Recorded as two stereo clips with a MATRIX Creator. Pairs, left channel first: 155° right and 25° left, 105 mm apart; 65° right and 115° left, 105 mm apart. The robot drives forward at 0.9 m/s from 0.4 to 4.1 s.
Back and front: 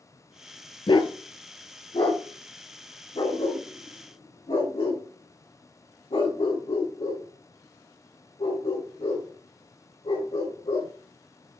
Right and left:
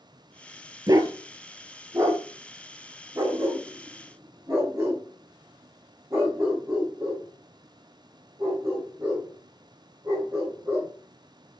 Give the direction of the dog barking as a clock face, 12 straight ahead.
7 o'clock.